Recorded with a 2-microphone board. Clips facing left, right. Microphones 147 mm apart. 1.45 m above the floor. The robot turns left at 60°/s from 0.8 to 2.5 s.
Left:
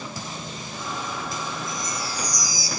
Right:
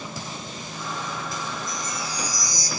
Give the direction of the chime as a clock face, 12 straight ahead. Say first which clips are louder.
Left 1 dB; 4 o'clock.